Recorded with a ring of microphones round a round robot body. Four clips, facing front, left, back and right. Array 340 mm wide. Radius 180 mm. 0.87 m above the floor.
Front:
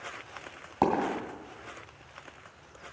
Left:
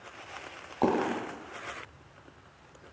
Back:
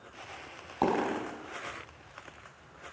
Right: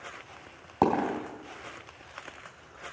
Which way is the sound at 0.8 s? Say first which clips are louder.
Right 2 dB, front 2 dB; 80° right.